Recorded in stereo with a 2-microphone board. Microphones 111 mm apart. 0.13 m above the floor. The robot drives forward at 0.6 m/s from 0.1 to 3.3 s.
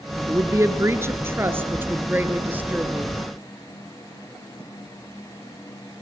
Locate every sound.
0.3 s a woman speaking: 30° right (ahead or behind), 1.5 m; by 3.2 s 15° right (ahead or behind), 3 m